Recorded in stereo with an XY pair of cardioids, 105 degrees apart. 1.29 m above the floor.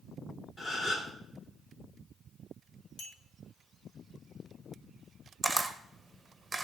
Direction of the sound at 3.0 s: 65° left.